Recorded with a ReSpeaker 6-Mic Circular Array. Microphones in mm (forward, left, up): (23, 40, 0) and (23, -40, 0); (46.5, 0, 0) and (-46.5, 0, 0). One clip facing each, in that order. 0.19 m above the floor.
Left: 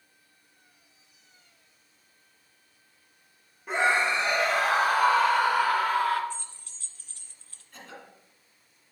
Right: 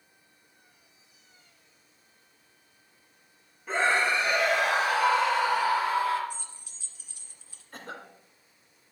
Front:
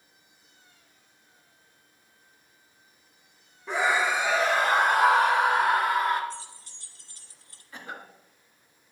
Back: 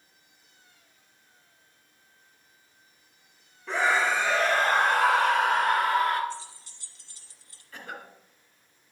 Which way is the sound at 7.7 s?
70° right.